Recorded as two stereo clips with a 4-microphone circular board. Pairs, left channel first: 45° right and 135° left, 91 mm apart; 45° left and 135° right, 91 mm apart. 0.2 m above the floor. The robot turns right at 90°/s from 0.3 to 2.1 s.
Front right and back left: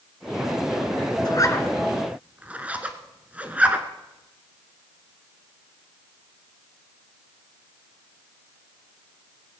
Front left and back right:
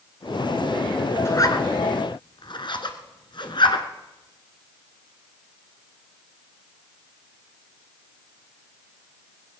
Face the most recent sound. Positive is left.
turn(degrees=65)